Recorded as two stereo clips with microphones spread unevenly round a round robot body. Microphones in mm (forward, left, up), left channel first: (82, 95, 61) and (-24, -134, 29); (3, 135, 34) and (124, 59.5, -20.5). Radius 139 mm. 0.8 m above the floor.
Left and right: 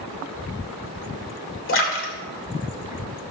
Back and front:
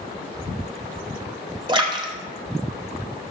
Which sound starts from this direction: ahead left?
A splash, at 1.7 s.